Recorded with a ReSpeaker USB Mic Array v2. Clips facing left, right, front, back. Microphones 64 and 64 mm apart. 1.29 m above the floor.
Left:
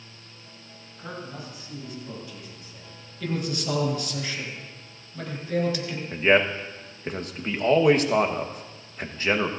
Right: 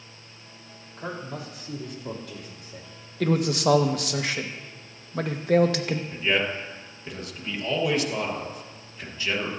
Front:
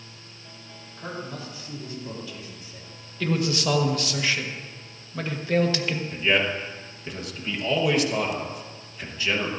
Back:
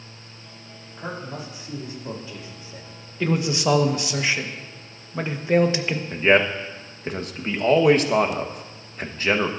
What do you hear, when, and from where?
1.0 s a man speaking: 105° right, 4 m; by 2.8 s 120° right, 3.5 m
3.2 s a man speaking: 110° right, 1.4 m
6.1 s a man speaking: 135° left, 1.3 m